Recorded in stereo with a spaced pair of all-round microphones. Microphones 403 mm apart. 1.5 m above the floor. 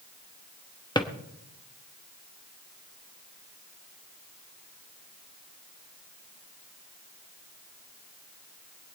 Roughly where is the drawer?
Centre.